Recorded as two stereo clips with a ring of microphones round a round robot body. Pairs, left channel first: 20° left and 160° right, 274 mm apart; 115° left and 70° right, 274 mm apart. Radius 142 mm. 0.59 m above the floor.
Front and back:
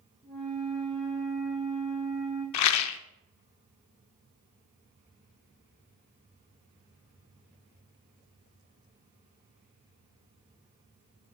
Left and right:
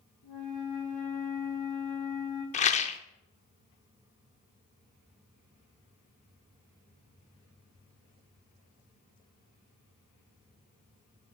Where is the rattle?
50° left, 0.6 m.